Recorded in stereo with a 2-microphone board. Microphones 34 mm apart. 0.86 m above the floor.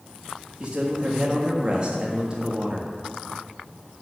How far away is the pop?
I don't hear a pop.